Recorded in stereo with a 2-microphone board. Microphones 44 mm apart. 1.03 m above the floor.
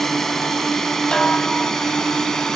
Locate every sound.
0.0 s a drone: 5° left (ahead or behind); by 2.5 s 10° left (ahead or behind)
1.1 s a snare drum: 20° left (ahead or behind)